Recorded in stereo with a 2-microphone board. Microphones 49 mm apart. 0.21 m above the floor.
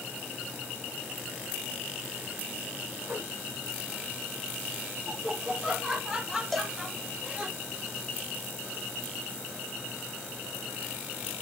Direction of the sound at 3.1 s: 40° right (ahead or behind).